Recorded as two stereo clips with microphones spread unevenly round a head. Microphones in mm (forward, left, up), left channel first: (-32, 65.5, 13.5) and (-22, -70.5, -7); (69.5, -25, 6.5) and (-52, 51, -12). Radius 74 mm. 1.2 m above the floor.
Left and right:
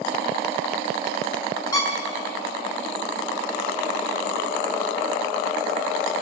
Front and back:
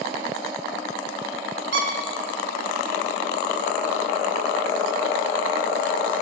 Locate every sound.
1.7 s a squeak: 150° left, 1.8 m